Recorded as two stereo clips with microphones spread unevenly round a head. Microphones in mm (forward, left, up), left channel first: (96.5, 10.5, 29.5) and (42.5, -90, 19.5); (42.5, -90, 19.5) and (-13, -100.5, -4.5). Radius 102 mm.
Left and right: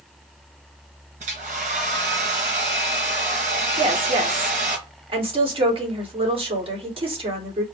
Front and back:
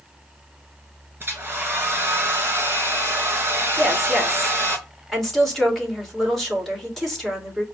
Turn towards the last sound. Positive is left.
turn(degrees=-85)